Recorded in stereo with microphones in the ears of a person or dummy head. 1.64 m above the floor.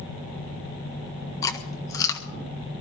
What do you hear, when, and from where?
1.4 s chewing: 20° left (ahead or behind), 1.5 m